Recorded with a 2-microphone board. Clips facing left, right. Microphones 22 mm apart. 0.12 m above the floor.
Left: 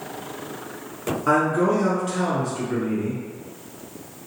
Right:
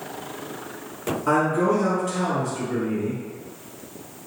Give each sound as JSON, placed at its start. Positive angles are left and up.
{"t": 1.3, "sound": "a man speaking", "side_deg": 15, "distance_m": 1.2}